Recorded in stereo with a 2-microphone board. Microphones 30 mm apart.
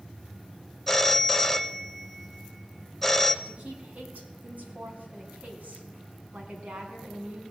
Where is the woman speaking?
65° right (ahead or behind), 2.5 m.